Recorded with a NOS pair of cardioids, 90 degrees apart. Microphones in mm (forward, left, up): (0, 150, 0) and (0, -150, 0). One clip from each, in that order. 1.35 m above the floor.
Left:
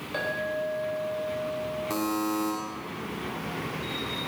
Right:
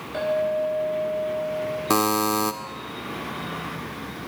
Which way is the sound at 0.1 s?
40° left.